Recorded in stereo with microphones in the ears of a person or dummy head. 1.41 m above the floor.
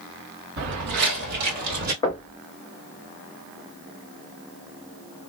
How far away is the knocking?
About 0.9 m.